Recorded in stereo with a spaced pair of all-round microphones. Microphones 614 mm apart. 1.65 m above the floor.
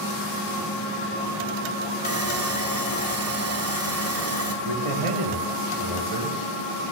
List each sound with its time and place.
2.0 s sawing: 25° right (ahead or behind), 1.2 m
4.7 s a man speaking: 55° right (ahead or behind), 1.7 m